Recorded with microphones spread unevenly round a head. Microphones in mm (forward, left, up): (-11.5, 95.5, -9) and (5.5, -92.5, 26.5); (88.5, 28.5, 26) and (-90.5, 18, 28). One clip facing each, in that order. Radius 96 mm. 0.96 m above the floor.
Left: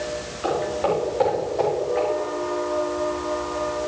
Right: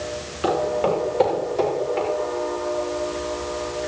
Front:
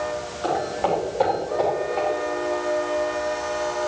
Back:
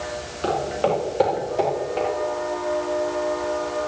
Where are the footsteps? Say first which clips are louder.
Right 2 dB, back 2 dB; 125° right, 9 m; by 2.1 s 135° right, 7.5 m.